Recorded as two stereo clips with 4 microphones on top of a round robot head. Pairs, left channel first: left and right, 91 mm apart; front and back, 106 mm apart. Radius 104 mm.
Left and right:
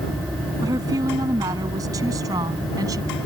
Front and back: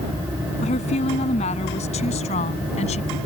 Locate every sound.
0.6 s a woman speaking: 30° right